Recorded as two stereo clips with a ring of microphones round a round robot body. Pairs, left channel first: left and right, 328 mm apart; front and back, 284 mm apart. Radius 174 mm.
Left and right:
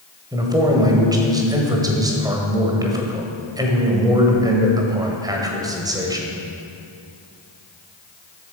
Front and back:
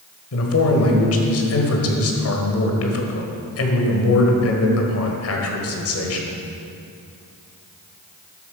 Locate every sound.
0.3 s a man speaking: 15° right, 1.6 m